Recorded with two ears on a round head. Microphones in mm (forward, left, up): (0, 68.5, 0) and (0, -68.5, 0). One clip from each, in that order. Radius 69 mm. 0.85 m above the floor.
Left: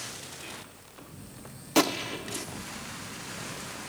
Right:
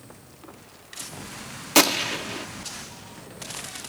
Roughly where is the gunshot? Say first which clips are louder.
Right 6 dB; right.